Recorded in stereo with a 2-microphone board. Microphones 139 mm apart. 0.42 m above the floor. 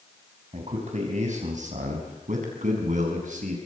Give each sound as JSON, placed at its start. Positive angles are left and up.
{"t": 0.5, "sound": "a man speaking", "side_deg": -55, "distance_m": 4.0}